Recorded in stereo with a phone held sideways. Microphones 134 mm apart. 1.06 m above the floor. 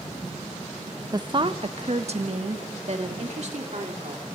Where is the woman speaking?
30° right (ahead or behind), 0.6 m; by 4.4 s 60° right (ahead or behind), 3.5 m.